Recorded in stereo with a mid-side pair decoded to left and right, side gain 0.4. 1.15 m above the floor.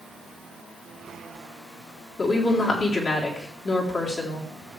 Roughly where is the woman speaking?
Ahead left.